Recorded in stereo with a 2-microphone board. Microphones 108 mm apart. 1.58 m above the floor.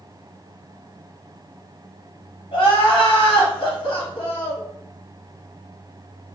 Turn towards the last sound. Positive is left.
turn(degrees=60)  # may be behind; listen again after turning